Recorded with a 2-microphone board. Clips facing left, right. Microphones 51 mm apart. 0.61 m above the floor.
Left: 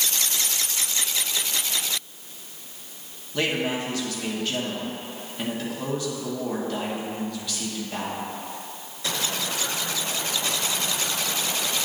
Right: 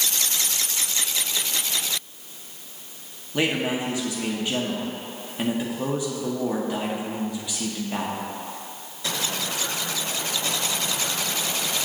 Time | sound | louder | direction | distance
3.3 | a man speaking | right 1 dB | 15° right (ahead or behind) | 0.9 m